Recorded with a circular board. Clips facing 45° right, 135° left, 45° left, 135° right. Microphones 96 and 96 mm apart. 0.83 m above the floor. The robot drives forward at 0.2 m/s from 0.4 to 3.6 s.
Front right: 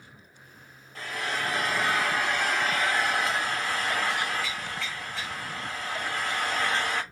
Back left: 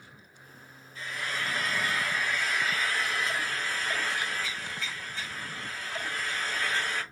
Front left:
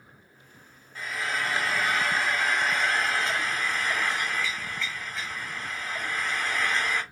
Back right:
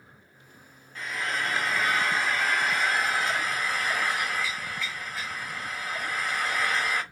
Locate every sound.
0.9 s frying: 40° right, 2.5 m; by 7.0 s 50° right, 1.9 m